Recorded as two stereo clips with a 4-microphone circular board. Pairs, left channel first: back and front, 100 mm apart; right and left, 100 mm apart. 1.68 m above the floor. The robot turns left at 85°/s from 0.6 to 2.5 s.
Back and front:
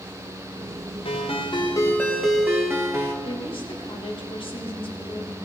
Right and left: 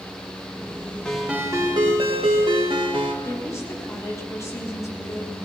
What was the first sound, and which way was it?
A ringtone, 170° right.